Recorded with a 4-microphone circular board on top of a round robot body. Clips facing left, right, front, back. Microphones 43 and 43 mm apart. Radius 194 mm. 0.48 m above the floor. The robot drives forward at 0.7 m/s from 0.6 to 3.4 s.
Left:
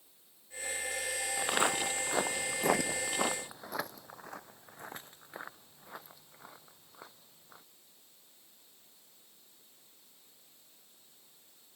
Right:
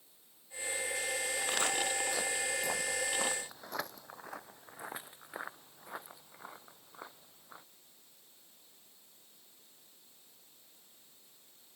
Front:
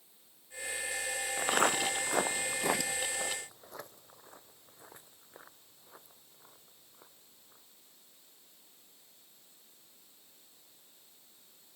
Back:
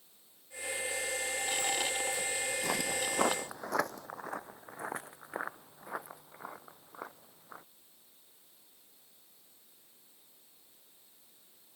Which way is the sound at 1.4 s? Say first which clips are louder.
Left 5 dB, front 7 dB; 25° left.